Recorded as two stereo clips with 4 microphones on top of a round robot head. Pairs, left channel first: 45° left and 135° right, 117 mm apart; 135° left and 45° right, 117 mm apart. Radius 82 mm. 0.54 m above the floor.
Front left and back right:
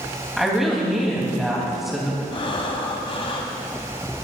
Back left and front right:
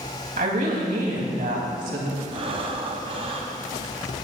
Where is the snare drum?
I don't hear a snare drum.